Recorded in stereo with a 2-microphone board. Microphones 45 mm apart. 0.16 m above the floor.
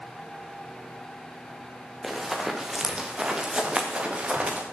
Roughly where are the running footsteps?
Centre.